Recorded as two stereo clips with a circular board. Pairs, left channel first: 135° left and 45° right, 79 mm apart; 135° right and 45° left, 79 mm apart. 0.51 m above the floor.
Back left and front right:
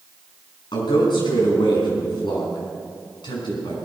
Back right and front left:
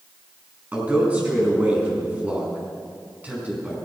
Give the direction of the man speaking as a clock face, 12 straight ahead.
8 o'clock.